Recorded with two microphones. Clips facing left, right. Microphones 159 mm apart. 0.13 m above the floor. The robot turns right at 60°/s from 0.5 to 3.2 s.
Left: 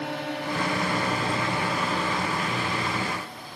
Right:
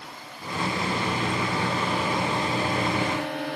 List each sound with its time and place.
0.0 s a drone: 75° left (ahead or behind); by 3.6 s 70° right (ahead or behind)